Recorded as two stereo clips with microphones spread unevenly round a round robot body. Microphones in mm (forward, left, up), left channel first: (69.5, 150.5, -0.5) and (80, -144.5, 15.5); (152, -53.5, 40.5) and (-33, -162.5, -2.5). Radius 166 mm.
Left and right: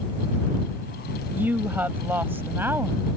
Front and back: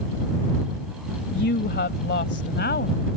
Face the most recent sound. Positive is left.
turn(degrees=-5)